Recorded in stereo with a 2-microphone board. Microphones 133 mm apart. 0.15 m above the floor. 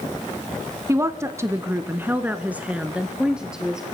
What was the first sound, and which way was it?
A woman speaking, 20° right (ahead or behind).